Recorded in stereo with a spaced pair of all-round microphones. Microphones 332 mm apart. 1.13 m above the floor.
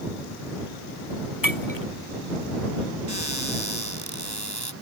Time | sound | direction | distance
1.4 | breaking glass | 75° left (ahead or behind) | ?
3.1 | a cupboard door | 55° right (ahead or behind) | ?